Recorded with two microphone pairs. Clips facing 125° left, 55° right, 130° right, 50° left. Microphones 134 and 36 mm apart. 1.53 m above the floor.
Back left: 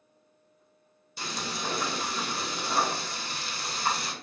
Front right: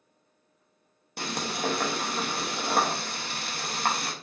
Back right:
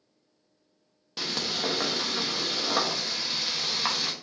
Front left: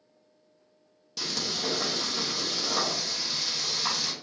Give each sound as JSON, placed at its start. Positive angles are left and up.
{"t": 1.2, "sound": "frying", "azimuth_deg": -75, "distance_m": 0.7}